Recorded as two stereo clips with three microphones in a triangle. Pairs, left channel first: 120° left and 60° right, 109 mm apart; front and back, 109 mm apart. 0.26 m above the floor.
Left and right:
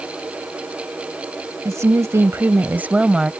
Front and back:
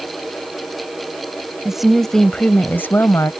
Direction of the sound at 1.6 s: 95° right.